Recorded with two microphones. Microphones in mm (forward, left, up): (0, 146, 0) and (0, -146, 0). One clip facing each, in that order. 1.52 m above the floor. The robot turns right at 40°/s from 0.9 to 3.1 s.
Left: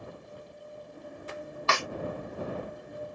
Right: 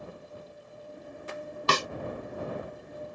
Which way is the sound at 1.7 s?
40° right (ahead or behind).